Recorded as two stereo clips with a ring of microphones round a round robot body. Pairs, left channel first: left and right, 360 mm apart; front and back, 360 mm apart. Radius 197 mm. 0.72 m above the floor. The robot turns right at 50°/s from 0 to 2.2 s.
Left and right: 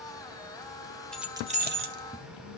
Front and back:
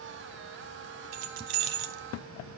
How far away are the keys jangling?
About 1.5 m.